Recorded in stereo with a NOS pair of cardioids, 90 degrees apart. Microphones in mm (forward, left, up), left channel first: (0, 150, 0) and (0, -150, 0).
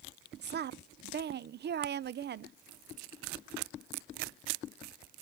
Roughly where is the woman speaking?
Ahead right.